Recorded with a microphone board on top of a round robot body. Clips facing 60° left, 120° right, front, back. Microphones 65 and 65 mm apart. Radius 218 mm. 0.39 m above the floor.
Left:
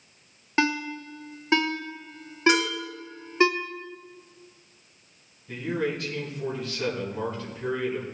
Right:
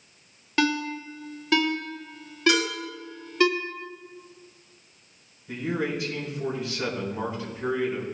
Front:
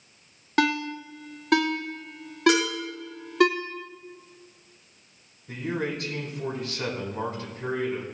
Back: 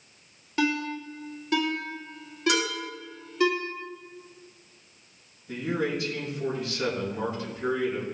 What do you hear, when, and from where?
0.6 s a ringtone: straight ahead, 1.4 m
2.5 s dishes clattering: 5° right, 6 m
5.5 s a man speaking: 40° right, 4 m